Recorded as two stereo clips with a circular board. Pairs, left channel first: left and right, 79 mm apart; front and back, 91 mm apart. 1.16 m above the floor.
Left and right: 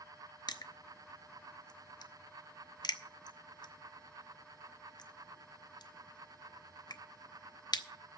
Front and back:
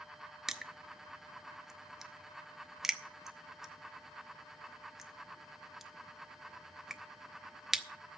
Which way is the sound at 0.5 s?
95° left.